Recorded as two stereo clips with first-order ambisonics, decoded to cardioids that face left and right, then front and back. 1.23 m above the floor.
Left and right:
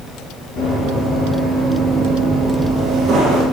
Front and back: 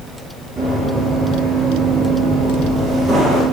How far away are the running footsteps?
About 1.5 m.